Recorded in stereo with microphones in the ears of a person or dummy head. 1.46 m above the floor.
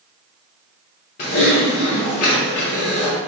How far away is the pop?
I don't hear a pop.